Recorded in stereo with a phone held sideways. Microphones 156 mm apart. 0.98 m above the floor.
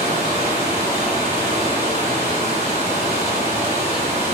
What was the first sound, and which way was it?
Running water, 45° right (ahead or behind).